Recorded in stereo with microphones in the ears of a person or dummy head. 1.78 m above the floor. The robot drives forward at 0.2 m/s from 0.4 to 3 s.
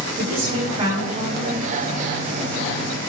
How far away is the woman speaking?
About 1.8 m.